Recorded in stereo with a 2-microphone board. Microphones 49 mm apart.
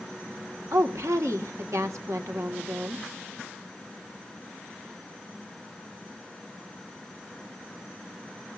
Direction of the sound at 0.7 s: 80° right.